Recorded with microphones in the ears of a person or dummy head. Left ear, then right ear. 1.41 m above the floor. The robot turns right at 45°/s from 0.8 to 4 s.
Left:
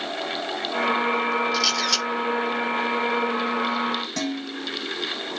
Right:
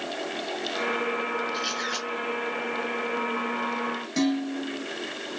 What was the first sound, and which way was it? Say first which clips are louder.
A camera shutter: left 7 dB; 65° left (ahead or behind).